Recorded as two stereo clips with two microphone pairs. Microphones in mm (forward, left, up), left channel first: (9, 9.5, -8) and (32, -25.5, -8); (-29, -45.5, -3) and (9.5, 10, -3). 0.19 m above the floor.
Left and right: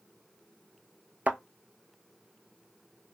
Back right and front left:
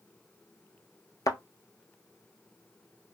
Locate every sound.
1.3 s a thud: 100° right, 0.8 m